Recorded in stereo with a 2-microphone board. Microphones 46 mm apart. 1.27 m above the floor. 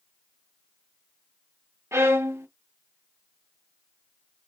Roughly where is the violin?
Right.